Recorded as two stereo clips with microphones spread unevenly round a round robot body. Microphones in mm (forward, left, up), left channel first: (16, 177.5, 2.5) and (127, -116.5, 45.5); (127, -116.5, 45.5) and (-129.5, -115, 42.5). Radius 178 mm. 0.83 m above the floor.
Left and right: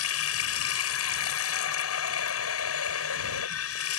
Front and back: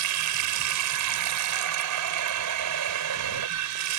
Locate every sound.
0.0 s running water: 165° left